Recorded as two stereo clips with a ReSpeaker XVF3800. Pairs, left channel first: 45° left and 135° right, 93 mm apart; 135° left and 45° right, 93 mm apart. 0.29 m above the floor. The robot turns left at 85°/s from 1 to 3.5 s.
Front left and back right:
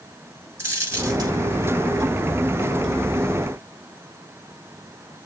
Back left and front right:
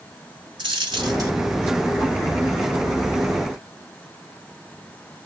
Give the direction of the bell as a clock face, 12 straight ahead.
No bell in this recording.